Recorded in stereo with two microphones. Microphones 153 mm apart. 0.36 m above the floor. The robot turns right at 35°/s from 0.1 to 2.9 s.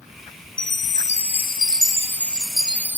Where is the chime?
115° left; by 3.0 s 165° right.